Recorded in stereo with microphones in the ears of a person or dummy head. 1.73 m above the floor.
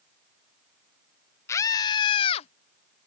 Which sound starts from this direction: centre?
A scream, at 1.5 s.